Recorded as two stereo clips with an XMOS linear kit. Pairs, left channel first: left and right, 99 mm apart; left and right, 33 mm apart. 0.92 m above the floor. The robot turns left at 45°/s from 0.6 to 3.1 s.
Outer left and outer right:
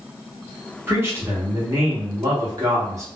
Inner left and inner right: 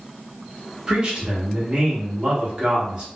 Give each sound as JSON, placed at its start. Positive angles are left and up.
{"t": 0.9, "sound": "a man speaking", "azimuth_deg": -35, "distance_m": 1.2}